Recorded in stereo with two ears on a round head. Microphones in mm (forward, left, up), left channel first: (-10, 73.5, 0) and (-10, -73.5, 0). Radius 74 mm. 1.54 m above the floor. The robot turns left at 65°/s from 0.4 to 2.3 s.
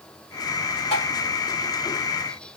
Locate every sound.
0.9 s tapping: 35° left (ahead or behind), 3 m; by 1.1 s 50° left (ahead or behind), 3 m